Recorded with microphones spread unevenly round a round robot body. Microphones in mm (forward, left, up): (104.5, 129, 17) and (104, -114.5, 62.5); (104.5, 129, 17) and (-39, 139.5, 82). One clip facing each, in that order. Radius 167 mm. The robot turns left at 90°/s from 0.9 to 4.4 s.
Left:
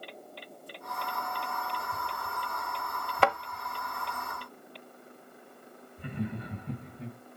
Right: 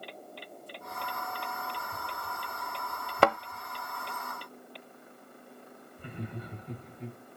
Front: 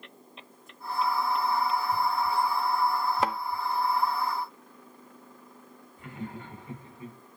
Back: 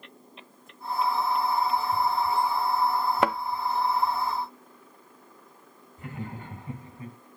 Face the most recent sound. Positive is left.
turn(degrees=120)